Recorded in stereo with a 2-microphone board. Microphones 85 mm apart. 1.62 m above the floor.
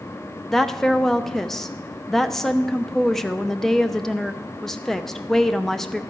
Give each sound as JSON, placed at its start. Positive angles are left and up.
{"t": 0.5, "sound": "a woman speaking", "side_deg": 5, "distance_m": 0.5}